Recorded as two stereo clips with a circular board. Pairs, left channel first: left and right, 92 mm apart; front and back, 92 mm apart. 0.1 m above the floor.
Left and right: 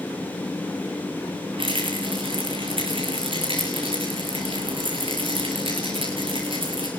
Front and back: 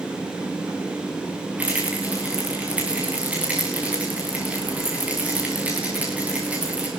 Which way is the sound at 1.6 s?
105° right.